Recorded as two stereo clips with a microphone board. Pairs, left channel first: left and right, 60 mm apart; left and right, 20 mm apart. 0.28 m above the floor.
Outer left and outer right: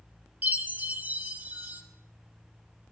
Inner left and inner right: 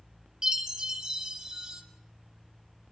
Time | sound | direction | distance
0.4 | a chime | 30° right (ahead or behind) | 1.1 m